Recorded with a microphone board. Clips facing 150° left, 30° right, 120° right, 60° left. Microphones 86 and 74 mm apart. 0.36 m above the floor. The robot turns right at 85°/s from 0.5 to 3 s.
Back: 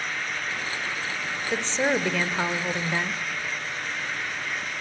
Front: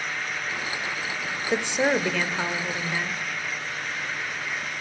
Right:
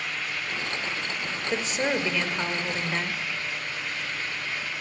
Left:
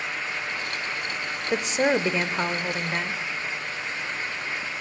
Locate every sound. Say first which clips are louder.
1.5 s a woman speaking: front 2 dB, left 5 dB; 10° left, 0.9 m; by 3.2 s 135° left, 0.9 m